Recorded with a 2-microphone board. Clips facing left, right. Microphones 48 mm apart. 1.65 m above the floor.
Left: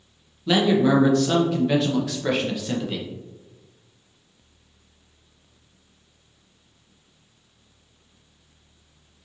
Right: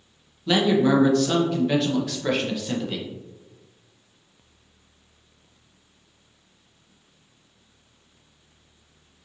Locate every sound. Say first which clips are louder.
0.5 s a man speaking: left 1 dB; centre (ahead or behind), 0.6 m